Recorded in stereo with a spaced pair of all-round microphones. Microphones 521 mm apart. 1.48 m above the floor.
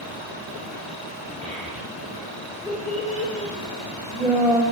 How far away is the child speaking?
About 2 m.